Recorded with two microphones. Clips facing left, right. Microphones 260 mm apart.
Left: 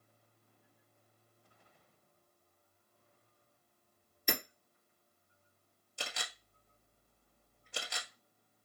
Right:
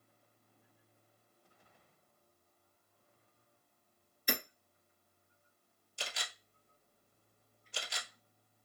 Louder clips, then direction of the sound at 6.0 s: Left 1 dB; 60° left (ahead or behind).